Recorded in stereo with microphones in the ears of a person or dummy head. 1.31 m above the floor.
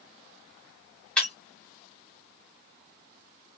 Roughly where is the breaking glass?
Centre.